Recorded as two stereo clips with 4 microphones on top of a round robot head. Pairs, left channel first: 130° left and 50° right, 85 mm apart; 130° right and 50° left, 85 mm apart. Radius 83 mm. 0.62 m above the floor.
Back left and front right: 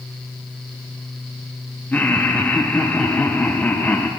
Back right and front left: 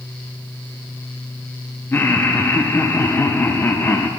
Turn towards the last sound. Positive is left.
turn(degrees=-175)